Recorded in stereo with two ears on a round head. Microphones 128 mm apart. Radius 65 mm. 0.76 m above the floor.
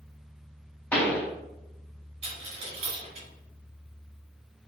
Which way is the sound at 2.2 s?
45° right (ahead or behind).